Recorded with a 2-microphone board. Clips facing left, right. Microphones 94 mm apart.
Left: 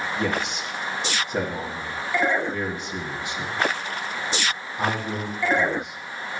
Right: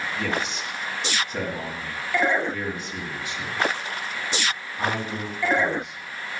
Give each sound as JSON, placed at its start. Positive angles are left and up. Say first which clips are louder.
{"t": 0.2, "sound": "a man speaking", "louder": "left 1 dB", "side_deg": 25, "distance_m": 1.9}